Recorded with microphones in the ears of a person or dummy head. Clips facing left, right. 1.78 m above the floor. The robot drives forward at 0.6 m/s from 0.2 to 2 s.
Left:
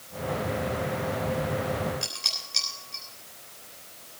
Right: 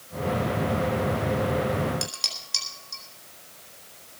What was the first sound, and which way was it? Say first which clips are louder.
Dishes clattering: right 3 dB; 75° right (ahead or behind).